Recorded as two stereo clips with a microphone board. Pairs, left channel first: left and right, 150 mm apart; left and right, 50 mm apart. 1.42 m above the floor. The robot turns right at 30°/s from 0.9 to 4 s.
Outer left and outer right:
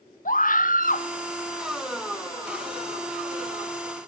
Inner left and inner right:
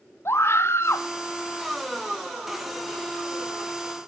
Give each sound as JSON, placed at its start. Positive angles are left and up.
{"t": 0.2, "sound": "a scream", "side_deg": 60, "distance_m": 1.9}